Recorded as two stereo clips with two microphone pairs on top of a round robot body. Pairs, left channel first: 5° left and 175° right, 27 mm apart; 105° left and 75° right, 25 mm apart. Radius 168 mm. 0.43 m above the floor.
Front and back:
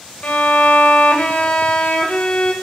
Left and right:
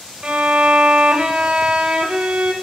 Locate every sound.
0.2 s a violin: 30° right, 0.9 m